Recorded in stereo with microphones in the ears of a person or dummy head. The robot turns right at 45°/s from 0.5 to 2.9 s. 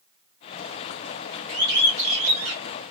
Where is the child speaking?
No child speaking in this recording.